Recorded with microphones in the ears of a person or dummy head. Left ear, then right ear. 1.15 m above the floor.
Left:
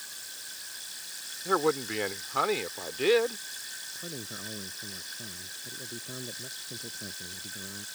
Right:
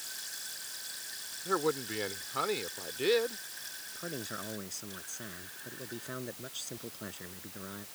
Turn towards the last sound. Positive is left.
turn(degrees=-75)  # may be behind; listen again after turning